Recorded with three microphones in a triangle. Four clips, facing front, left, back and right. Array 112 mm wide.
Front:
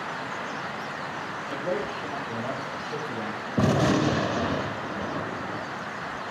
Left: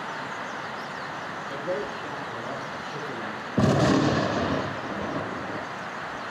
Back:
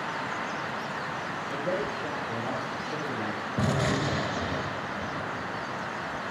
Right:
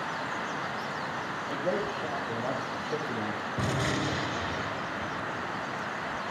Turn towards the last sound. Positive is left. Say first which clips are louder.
# left 11 dB, front 6 dB
turn(degrees=65)